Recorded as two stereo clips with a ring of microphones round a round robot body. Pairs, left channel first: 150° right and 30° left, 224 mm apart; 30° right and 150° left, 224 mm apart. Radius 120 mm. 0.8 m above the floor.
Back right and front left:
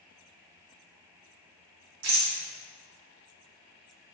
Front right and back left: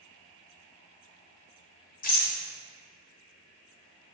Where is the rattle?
20° left, 1.9 m.